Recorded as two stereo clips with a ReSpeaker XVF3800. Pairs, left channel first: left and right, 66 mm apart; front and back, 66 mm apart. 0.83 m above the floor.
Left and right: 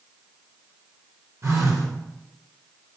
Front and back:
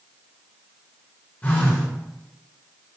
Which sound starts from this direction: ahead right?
A phone buzzing, at 1.4 s.